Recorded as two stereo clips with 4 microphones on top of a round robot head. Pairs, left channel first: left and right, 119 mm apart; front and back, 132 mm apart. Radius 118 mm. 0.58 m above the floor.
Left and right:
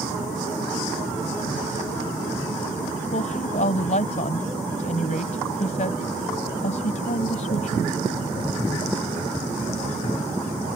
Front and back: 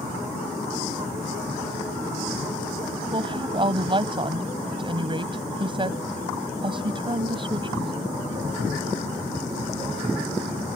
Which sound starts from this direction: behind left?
A woman speaking, at 3.1 s.